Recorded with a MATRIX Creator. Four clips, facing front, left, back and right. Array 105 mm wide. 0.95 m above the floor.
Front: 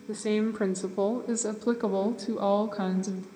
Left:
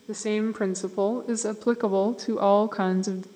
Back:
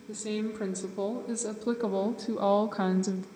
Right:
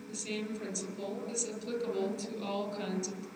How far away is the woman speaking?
About 2.5 m.